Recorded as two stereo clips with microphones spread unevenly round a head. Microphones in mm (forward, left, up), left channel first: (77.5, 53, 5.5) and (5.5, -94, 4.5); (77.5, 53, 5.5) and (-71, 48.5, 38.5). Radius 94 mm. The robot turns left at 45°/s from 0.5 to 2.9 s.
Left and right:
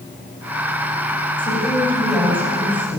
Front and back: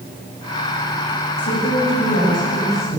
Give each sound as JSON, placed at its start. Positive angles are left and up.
{"t": 1.4, "sound": "a woman speaking", "azimuth_deg": 5, "distance_m": 7.5}